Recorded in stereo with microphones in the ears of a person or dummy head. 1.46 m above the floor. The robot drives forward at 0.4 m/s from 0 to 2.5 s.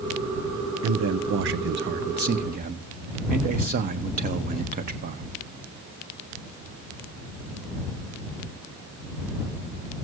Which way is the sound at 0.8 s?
75° right (ahead or behind).